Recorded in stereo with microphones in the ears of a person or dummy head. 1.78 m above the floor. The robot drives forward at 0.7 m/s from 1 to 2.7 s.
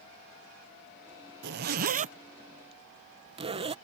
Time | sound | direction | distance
1.4 | a zipper | 55° right (ahead or behind) | ?